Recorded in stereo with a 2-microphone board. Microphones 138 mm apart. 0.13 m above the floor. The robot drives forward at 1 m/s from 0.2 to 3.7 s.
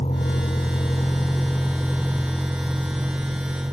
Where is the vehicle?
50° left (ahead or behind); by 3.7 s 15° right (ahead or behind).